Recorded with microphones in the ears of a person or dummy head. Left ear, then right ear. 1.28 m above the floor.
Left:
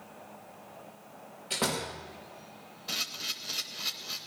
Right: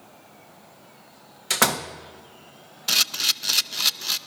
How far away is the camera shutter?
About 0.6 m.